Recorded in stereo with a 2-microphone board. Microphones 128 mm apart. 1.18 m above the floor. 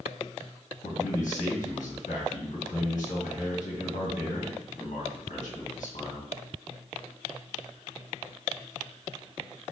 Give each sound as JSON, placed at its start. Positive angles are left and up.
{"t": 0.8, "sound": "a man speaking", "side_deg": 80, "distance_m": 1.5}